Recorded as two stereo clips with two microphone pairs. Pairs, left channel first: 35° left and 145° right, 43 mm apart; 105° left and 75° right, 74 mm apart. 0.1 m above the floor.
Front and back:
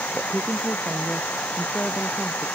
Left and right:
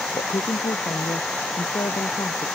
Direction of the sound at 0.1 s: 95° left.